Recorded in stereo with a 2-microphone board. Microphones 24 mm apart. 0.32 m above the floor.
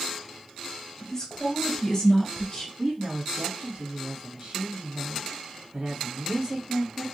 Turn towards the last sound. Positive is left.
turn(degrees=-40)  # may be behind; listen again after turning